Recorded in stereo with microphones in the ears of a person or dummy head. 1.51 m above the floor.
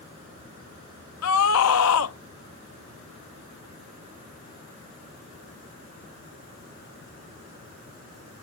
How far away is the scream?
About 0.6 m.